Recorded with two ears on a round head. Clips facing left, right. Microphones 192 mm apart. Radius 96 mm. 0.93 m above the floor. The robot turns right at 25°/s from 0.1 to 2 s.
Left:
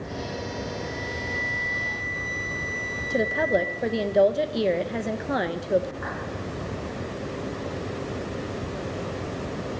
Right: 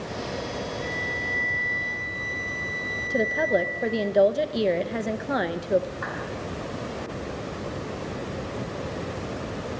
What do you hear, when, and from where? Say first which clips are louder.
0.8 s a flute: even; 75° right (ahead or behind), 3.5 m; by 4.1 s 50° right (ahead or behind), 3.5 m
3.1 s a woman speaking: even; centre (ahead or behind), 0.6 m
6.0 s a clap: even; 55° right (ahead or behind), 9.5 m